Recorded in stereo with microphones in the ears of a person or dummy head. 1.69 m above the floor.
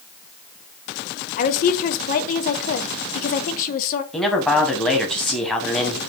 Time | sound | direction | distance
1.4 | a woman speaking | 45° left (ahead or behind) | 0.6 m
4.1 | a man speaking | centre (ahead or behind) | 1.0 m